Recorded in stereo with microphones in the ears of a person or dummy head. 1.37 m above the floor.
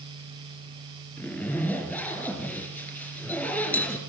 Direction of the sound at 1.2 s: 10° left (ahead or behind).